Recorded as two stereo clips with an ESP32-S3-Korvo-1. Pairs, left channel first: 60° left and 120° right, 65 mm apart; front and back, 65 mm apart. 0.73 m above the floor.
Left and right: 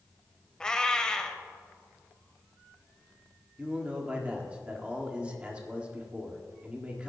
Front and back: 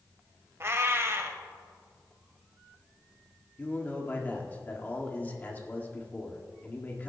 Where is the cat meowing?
135° left, 1.0 m.